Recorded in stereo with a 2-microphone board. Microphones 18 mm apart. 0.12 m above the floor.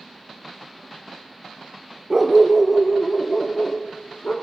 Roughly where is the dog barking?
Right.